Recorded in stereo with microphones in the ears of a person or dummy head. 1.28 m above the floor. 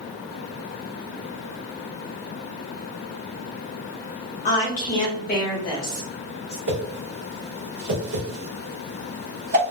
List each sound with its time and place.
4.5 s a woman speaking: 40° left (ahead or behind), 0.7 m
6.7 s a whoosh: 50° right (ahead or behind), 0.8 m